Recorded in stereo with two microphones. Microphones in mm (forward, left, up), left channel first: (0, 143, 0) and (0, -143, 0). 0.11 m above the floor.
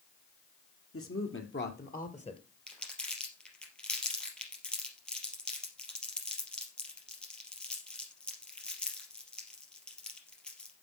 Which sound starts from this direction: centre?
Crumpling, at 2.7 s.